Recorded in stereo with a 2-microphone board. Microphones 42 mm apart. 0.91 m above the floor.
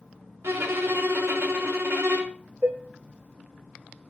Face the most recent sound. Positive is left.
turn(degrees=-50)  # may be behind; listen again after turning